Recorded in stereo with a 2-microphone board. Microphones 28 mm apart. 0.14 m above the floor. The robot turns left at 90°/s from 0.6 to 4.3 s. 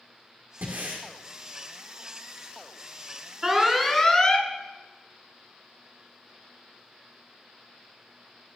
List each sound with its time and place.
0.6 s breathing: 90° right, 2.5 m; by 1.1 s 130° right, 2.5 m
3.4 s an alarm: 150° right, 1.0 m; by 4.5 s 130° left, 1.0 m